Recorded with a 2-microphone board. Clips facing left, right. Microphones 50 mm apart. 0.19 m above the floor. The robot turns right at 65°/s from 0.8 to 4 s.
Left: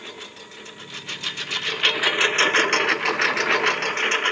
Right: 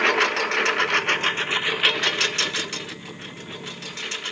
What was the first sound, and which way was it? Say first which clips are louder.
A lawn mower: right 19 dB; 70° right (ahead or behind).